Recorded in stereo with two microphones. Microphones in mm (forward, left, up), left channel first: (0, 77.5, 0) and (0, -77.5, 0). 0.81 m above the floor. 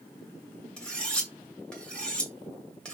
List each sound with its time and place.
0.8 s cutlery clinking: 5° left (ahead or behind), 1.3 m